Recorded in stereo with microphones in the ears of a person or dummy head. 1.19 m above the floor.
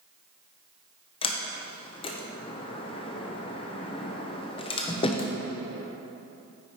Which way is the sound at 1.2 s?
25° left (ahead or behind).